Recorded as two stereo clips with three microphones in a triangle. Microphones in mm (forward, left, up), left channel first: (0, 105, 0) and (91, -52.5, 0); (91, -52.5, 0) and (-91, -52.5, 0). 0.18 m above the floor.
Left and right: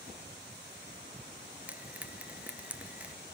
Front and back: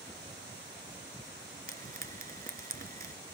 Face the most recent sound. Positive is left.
turn(degrees=-140)